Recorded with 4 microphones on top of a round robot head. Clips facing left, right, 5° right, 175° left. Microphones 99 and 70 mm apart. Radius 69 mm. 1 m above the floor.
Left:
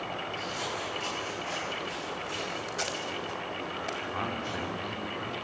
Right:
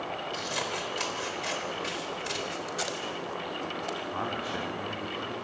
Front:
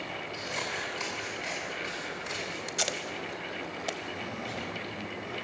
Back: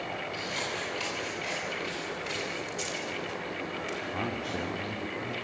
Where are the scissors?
80° right, 4 m.